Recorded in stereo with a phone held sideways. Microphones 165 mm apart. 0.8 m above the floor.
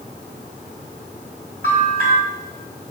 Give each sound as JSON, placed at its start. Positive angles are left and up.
{"t": 1.6, "sound": "a bell", "side_deg": -50, "distance_m": 8.0}